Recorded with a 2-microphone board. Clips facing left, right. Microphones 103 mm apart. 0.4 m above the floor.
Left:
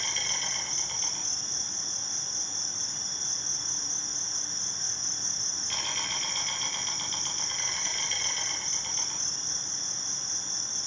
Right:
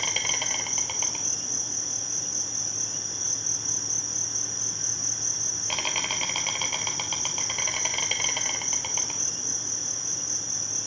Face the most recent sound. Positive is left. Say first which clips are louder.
# right 5 dB
turn(degrees=-70)  # may be behind; listen again after turning